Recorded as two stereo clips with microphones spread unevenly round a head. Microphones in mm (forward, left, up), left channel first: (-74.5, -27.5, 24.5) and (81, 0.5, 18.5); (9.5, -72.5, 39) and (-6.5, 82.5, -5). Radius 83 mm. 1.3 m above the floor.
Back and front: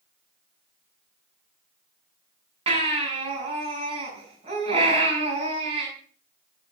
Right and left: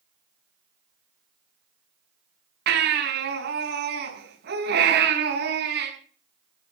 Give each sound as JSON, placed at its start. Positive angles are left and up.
{"t": 2.7, "sound": "a baby crying", "azimuth_deg": 65, "distance_m": 6.5}